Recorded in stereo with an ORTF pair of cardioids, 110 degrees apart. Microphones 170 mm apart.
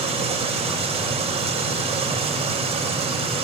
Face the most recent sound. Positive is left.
turn(degrees=-35)